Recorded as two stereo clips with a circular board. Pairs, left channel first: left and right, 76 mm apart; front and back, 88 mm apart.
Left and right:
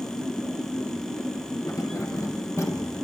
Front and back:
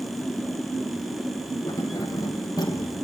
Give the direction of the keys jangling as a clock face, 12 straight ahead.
10 o'clock.